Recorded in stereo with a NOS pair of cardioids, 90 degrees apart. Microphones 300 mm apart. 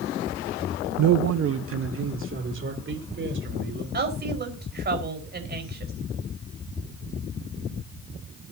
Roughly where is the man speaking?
Ahead right.